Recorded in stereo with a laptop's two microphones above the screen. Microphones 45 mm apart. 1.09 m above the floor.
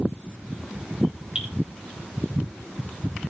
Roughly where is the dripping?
Right.